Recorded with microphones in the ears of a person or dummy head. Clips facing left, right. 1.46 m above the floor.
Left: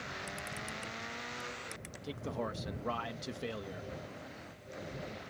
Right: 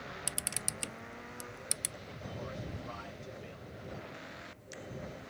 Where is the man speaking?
75° left (ahead or behind).